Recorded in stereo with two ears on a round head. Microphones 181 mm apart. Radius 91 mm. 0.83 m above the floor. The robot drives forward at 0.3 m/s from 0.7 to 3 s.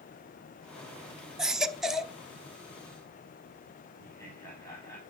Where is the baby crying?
5° right (ahead or behind), 0.7 m; by 2.1 s centre (ahead or behind), 0.9 m.